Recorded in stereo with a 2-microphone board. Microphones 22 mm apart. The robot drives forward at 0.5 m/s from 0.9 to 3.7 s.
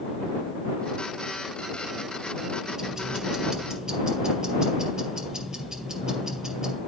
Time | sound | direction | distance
2.8 | ticking | 25° right (ahead or behind) | 2.5 m